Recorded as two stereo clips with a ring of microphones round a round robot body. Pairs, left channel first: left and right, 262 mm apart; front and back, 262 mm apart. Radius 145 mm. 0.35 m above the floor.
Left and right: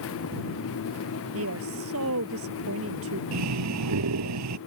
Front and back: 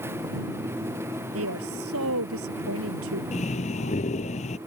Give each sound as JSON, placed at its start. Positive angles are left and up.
{"t": 1.3, "sound": "a woman speaking", "azimuth_deg": -135}
{"t": 3.3, "sound": "breathing", "azimuth_deg": -70}